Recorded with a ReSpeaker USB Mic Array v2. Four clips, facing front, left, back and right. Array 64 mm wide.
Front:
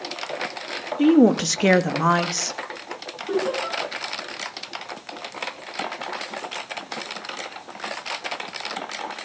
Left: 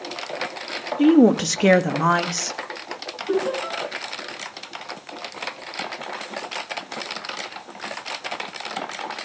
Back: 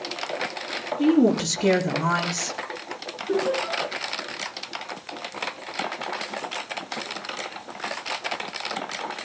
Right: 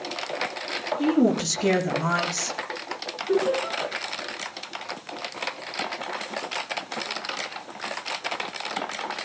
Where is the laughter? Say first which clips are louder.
Even, even; 35° left, 9.5 m.